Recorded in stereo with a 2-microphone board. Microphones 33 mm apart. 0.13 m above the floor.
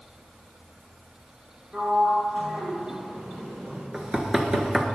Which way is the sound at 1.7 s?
40° right (ahead or behind).